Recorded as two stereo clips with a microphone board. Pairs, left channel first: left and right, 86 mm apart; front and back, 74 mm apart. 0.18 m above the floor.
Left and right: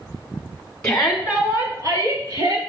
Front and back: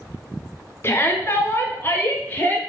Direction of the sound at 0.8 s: 15° left.